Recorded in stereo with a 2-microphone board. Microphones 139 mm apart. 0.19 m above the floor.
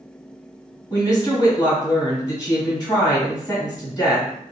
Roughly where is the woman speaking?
Left.